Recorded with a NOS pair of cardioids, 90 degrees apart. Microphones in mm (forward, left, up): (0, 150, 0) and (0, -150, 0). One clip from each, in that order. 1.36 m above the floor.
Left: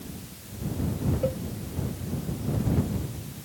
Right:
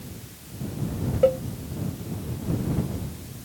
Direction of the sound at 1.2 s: 60° right.